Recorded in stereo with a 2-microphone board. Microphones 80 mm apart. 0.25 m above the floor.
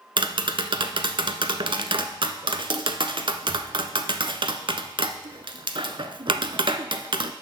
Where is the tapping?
75° right (ahead or behind), 0.5 m.